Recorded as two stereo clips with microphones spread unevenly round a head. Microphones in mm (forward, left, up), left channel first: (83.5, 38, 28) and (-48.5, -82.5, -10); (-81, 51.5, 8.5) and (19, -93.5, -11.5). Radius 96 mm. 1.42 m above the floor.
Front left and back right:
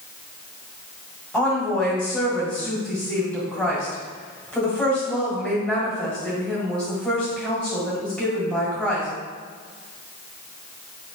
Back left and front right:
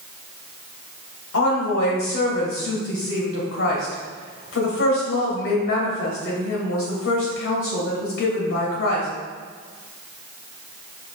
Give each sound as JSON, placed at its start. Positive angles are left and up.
{"t": 1.3, "sound": "a woman speaking", "azimuth_deg": 130, "distance_m": 1.5}